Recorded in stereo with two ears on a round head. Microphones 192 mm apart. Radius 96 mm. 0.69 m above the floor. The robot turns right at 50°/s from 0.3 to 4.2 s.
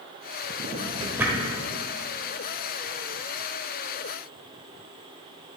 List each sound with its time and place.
0.6 s a drawer: 40° right (ahead or behind), 1.3 m; by 1.5 s 5° left (ahead or behind), 1.3 m